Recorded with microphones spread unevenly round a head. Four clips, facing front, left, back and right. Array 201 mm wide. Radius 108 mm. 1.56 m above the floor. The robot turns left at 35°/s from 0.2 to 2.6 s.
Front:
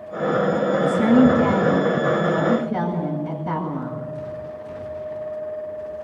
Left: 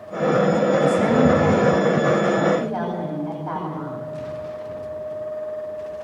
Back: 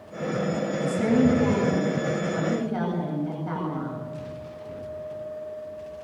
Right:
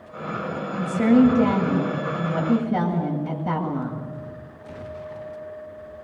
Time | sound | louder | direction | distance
0.8 | a woman speaking | even, front 6 dB | 20° right | 8.5 m